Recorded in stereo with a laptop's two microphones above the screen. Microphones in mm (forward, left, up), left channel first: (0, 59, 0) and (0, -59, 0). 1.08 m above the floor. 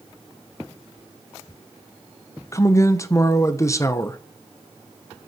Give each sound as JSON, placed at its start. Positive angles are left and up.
{"t": 2.5, "sound": "a man speaking", "side_deg": 25, "distance_m": 0.9}